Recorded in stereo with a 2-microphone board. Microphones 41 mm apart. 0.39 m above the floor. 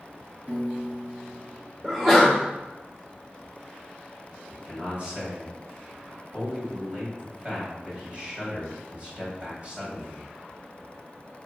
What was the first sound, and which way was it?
A piano, 35° right (ahead or behind).